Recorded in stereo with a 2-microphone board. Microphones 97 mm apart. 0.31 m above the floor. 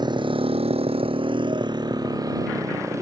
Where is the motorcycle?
50° right (ahead or behind); by 3.0 s 30° right (ahead or behind).